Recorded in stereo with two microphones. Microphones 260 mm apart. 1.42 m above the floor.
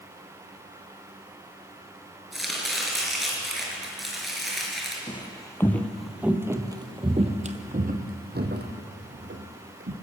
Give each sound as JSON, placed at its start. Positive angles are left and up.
{"t": 2.3, "sound": "chopping", "side_deg": 0, "distance_m": 4.5}
{"t": 5.1, "sound": "footsteps", "side_deg": 20, "distance_m": 1.5}